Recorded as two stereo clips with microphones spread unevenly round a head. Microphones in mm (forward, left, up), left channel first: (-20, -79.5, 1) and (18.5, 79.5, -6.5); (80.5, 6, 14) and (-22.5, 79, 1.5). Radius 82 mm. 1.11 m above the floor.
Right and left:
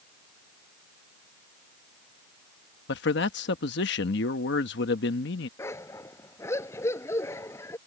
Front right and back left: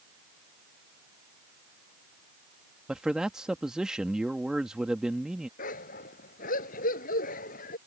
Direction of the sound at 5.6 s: 30° right.